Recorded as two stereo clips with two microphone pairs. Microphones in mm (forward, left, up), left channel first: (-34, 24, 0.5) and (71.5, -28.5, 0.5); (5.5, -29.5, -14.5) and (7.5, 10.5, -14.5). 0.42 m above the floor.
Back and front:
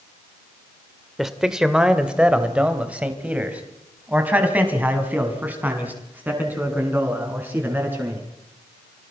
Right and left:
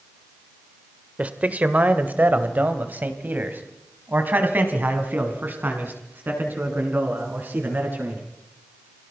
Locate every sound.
1.2 s a man speaking: 60° left, 1.6 m; by 8.2 s 50° left, 6.5 m